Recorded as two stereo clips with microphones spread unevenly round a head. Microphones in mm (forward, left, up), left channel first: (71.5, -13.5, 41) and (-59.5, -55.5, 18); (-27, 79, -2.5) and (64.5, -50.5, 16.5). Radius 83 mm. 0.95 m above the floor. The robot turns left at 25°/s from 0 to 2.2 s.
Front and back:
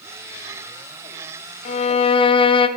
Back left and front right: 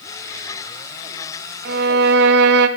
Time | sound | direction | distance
1.6 | a violin | 25° right | 0.5 m